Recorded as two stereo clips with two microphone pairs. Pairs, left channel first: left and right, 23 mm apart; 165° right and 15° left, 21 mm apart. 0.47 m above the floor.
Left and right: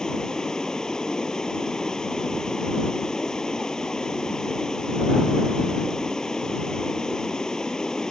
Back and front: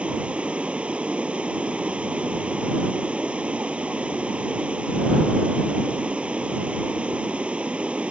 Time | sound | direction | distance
0.0 | running water | 35° left | ?